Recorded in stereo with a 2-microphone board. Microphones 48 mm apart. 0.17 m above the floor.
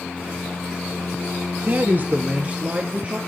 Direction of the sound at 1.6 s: 40° right (ahead or behind).